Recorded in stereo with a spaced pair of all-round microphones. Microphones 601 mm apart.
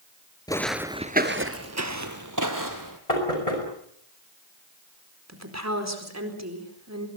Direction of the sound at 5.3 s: 25° right (ahead or behind).